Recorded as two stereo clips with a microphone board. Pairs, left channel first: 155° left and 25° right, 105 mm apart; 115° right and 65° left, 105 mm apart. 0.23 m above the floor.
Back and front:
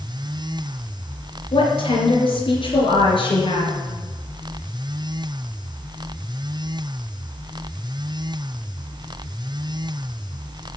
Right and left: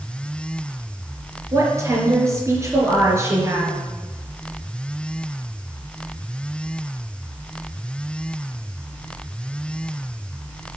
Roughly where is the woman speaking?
Behind left.